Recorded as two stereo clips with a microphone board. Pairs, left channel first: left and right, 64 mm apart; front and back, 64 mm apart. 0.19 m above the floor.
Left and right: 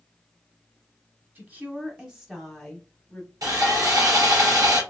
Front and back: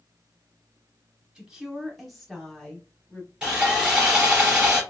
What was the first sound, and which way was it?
A woman speaking, 110° right.